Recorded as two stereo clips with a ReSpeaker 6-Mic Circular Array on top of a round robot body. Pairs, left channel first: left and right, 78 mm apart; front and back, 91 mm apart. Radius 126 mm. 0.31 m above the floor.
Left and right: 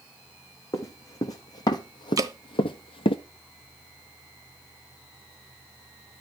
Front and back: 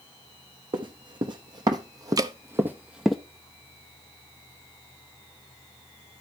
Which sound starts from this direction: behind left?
Running footsteps, at 0.7 s.